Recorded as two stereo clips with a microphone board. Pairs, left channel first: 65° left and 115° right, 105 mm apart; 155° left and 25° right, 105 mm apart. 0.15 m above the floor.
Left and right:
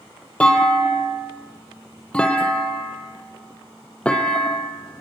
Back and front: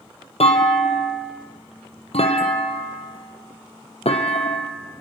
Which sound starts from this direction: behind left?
A clunk, at 0.4 s.